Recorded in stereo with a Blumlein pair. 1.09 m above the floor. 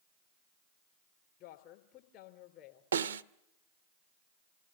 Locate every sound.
1.4 s a woman speaking: 40° left, 4 m
2.9 s a snare drum: 65° right, 0.7 m